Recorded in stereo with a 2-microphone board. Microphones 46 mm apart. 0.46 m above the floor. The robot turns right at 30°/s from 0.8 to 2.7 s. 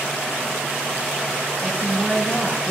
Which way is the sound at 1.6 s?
Centre (ahead or behind).